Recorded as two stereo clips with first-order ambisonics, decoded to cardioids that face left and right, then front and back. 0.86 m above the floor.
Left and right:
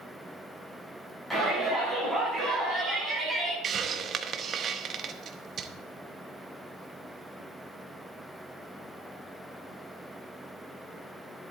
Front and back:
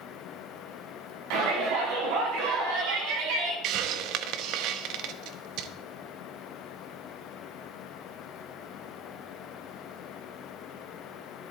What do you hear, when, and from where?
1.3 s a shout: 175° left, 6 m; by 3.5 s 170° right, 6 m
3.6 s a hiss: 150° right, 0.7 m